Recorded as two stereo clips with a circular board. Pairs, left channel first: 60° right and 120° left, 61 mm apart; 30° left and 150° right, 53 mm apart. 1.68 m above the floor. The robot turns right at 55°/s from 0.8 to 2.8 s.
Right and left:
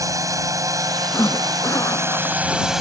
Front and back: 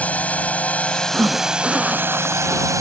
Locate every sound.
0.0 s a drone: 90° left; by 2.8 s 155° right
1.1 s a zipper: 95° right; by 2.8 s 5° right